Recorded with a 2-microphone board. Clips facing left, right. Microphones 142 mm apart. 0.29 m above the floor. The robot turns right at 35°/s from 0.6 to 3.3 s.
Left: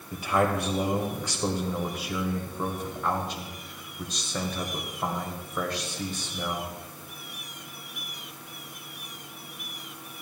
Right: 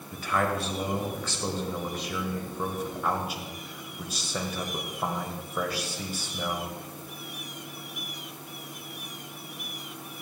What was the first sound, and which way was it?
A man speaking, 20° left (ahead or behind).